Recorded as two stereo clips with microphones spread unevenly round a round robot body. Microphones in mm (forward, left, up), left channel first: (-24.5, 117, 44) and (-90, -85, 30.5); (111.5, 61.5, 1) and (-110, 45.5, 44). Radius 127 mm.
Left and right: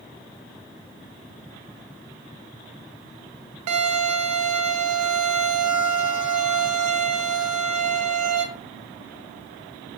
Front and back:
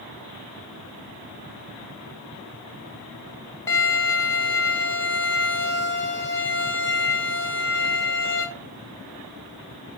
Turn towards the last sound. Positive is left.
turn(degrees=-80)